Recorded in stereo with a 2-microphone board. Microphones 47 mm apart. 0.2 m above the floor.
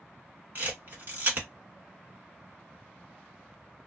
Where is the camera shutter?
45° right (ahead or behind), 1.3 m.